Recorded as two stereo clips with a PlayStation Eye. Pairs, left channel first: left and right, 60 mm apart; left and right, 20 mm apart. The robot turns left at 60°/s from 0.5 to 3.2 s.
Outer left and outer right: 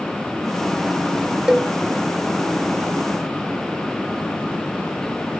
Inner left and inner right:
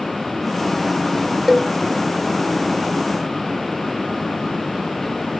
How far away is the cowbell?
About 0.8 m.